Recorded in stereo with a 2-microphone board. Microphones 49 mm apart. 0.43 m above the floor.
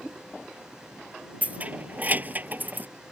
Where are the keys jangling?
35° right (ahead or behind); by 2.9 s 40° right (ahead or behind).